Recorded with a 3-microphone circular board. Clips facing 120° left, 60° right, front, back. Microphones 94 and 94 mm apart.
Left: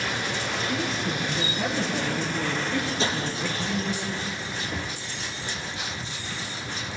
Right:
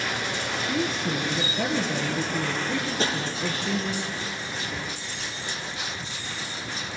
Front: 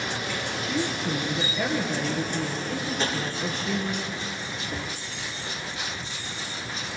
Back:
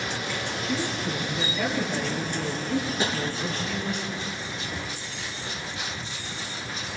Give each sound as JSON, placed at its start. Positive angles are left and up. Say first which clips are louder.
{"t": 0.6, "sound": "a woman speaking", "louder": "right 3 dB, front 1 dB", "azimuth_deg": -85, "distance_m": 6.0}
{"t": 3.0, "sound": "tapping", "louder": "right 2 dB, back 1 dB", "azimuth_deg": -105, "distance_m": 3.5}
{"t": 4.7, "sound": "knocking", "louder": "left 1 dB, front 1 dB", "azimuth_deg": 35, "distance_m": 1.2}